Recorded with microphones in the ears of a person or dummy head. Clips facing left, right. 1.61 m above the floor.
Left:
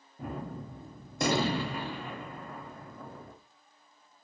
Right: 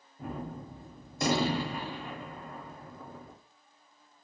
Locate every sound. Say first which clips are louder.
0.2 s a gunshot: even; 50° left (ahead or behind), 0.6 m